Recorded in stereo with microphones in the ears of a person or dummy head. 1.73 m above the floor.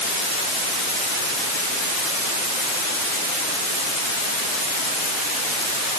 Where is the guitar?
No guitar in this recording.